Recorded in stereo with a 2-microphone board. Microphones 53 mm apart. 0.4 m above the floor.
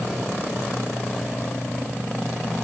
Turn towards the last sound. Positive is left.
No sound to turn to.